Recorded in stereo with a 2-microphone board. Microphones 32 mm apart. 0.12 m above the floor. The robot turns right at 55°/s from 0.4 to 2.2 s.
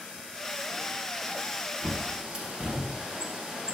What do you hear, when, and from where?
1.8 s a bird: 25° right (ahead or behind), 0.7 m; by 3.8 s 30° right (ahead or behind), 0.7 m